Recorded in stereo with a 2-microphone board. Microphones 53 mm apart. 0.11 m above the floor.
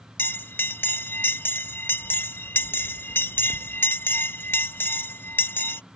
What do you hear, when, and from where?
0.2 s a bell: 45° left (ahead or behind)